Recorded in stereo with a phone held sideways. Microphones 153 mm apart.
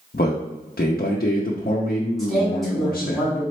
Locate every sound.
0.1 s a man speaking: 75° left (ahead or behind), 0.6 m
2.2 s a man speaking: centre (ahead or behind), 2.0 m